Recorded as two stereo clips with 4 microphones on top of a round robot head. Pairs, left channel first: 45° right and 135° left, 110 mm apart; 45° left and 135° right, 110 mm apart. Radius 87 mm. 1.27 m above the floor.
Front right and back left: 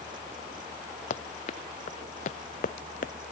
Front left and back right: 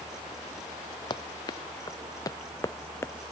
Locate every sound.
1.1 s running footsteps: 15° right; by 3.1 s 30° right